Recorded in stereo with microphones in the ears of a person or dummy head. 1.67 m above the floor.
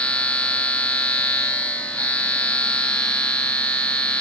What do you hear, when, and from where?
0.0 s a machine running: 5° left (ahead or behind), 1.0 m